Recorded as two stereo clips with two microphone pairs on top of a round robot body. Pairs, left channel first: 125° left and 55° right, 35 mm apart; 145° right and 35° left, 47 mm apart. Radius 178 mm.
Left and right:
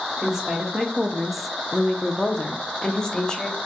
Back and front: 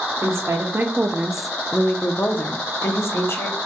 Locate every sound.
0.2 s a woman speaking: 15° left, 1.0 m; by 3.6 s 170° right, 1.4 m